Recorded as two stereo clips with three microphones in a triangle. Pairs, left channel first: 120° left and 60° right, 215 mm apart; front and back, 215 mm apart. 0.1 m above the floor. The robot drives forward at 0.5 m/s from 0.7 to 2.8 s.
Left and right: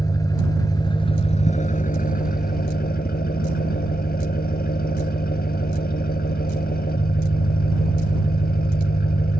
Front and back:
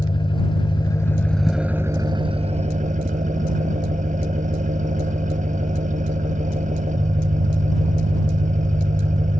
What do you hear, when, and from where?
0.0 s an engine running: 55° left, 0.9 m; by 9.4 s 140° left, 1.1 m